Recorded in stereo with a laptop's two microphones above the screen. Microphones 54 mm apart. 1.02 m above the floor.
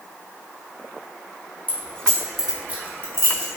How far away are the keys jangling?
About 0.7 m.